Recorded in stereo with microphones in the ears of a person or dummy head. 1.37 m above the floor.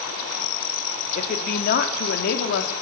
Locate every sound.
1.1 s a woman speaking: 50° left (ahead or behind), 4 m; by 2.7 s 70° left (ahead or behind), 4 m